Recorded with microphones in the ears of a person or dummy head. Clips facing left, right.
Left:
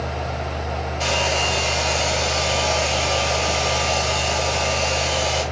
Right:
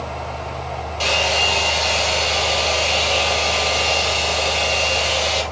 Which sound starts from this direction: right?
A hair dryer, at 1.0 s.